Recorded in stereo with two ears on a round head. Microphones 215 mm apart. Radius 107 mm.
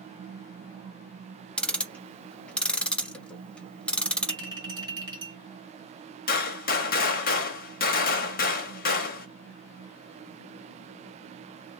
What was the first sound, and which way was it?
Ticking, 5° left (ahead or behind).